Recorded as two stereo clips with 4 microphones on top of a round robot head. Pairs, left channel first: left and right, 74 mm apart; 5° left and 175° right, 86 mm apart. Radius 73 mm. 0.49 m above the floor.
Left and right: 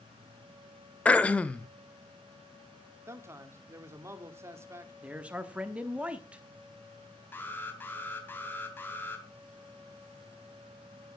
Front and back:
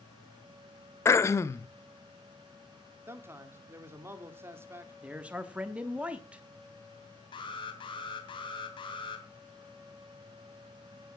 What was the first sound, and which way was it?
Throat clearing, 30° left.